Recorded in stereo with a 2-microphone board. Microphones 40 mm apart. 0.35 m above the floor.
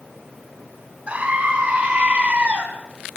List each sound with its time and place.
1.1 s a scream: 35° right (ahead or behind), 4.5 m; by 2.6 s 30° right (ahead or behind), 3.5 m